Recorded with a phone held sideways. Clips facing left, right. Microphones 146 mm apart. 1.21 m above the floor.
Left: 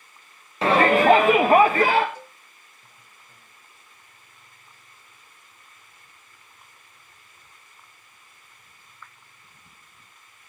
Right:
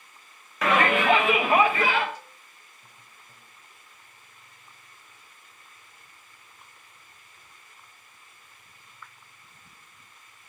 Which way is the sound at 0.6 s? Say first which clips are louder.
Left 5 dB; 30° left (ahead or behind).